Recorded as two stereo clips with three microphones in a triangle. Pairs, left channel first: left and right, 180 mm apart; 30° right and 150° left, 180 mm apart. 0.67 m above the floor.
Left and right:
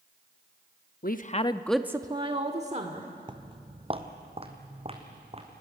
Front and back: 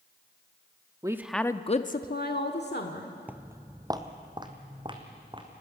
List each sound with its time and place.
1.0 s a woman speaking: 85° left, 0.9 m; by 3.1 s 45° right, 2.0 m
3.3 s footsteps: 135° right, 0.8 m; by 5.5 s 145° right, 3 m